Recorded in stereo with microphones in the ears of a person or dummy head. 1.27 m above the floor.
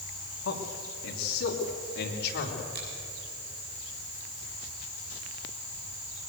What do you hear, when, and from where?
0.4 s a man speaking: 85° left, 3 m; by 2.6 s 60° left (ahead or behind), 3.5 m
2.8 s a finger snap: 55° right (ahead or behind), 8 m